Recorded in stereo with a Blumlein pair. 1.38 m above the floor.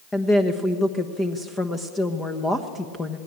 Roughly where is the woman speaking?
Ahead.